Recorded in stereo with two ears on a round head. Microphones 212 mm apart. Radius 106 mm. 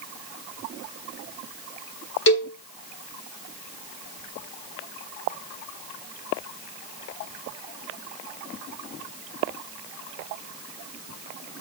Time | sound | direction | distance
2.3 | a cowbell | 50° left (ahead or behind) | 1.6 m